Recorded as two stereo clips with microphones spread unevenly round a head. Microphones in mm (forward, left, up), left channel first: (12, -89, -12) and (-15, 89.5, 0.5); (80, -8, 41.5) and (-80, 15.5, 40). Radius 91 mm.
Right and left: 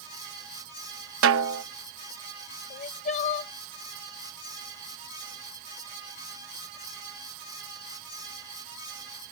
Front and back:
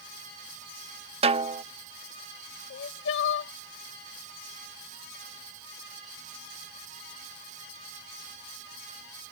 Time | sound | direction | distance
1.2 | a snare drum | 115° left | ?
2.7 | crying | 25° right | ?